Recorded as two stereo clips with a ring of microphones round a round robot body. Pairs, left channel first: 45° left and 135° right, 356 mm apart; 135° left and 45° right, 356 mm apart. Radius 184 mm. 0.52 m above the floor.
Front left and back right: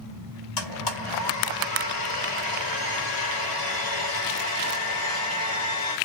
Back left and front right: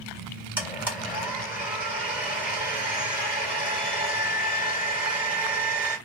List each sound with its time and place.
0.6 s a blender: 40° left, 1.9 m